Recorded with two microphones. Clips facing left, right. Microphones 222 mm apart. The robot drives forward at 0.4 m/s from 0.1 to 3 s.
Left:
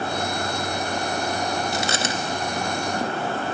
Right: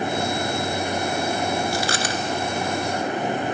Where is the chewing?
25° left (ahead or behind), 1.1 m; by 3.4 s 30° left (ahead or behind), 0.8 m.